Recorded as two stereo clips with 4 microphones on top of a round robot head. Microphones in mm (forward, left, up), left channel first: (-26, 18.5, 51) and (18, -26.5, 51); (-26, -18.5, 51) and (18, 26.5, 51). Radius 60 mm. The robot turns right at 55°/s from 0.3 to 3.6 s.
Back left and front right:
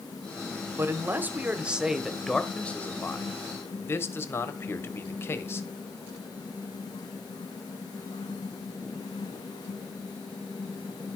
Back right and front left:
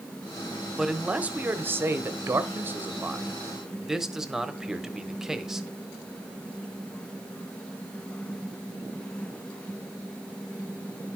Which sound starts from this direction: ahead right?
A man speaking, at 0.8 s.